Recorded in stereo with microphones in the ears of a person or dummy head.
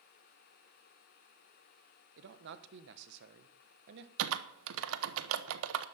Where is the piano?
No piano in this recording.